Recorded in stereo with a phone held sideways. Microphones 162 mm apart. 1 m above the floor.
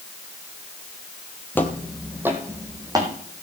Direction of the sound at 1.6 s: 10° left (ahead or behind).